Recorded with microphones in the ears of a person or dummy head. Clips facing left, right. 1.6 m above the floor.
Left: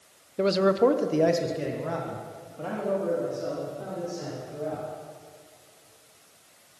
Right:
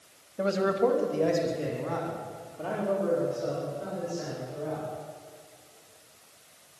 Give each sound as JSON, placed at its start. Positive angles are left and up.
{"t": 0.4, "sound": "a man speaking", "side_deg": 35, "distance_m": 1.1}